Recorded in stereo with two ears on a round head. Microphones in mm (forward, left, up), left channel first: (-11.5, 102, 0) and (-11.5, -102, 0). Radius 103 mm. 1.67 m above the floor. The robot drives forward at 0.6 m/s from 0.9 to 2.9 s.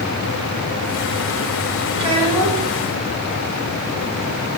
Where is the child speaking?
25° right (ahead or behind), 4.5 m; by 2.7 s 20° right (ahead or behind), 5 m.